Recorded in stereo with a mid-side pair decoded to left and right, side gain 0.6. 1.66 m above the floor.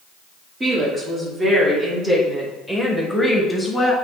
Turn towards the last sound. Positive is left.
turn(degrees=15)